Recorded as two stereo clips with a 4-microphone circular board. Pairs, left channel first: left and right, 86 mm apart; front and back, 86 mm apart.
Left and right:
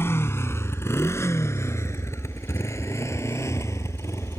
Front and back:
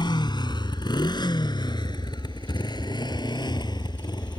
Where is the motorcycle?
30° left; by 4.4 s 35° left.